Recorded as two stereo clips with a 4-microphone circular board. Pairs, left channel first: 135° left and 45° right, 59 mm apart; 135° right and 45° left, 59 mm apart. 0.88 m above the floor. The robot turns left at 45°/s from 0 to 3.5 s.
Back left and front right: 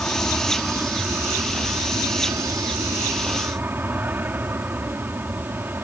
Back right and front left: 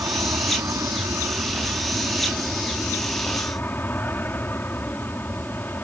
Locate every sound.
0.0 s an aircraft: 65° left; by 5.8 s 90° right